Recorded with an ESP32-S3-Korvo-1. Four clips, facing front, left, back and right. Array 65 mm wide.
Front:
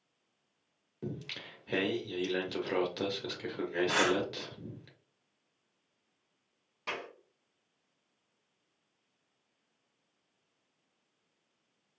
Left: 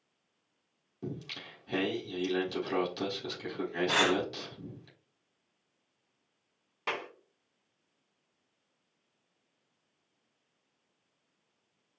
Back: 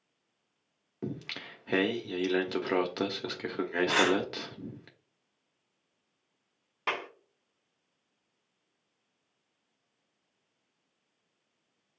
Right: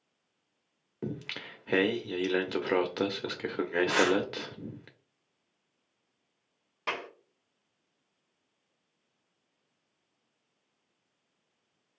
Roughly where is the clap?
Behind.